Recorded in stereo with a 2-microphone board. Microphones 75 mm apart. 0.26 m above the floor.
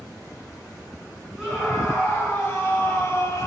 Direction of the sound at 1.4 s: 5° right (ahead or behind).